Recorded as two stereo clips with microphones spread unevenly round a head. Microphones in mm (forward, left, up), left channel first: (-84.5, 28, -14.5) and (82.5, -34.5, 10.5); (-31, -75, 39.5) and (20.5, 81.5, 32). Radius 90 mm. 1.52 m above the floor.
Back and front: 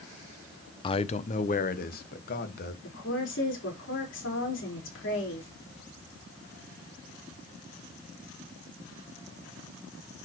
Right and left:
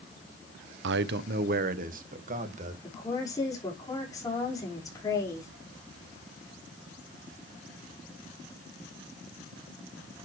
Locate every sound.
0.8 s a man speaking: 90° left, 0.7 m; by 2.7 s 120° left, 2 m
2.8 s a woman speaking: straight behind, 5 m